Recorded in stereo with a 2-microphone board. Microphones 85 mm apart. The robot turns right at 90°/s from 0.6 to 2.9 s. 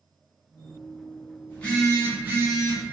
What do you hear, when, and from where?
1.5 s a phone buzzing: 150° left, 0.8 m; by 2.8 s 90° right, 0.8 m